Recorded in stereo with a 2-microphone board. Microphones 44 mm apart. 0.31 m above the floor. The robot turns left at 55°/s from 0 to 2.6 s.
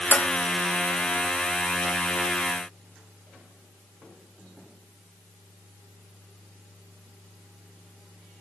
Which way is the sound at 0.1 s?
40° left (ahead or behind).